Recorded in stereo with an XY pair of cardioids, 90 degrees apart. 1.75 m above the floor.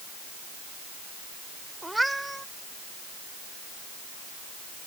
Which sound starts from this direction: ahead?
A cat meowing, at 1.8 s.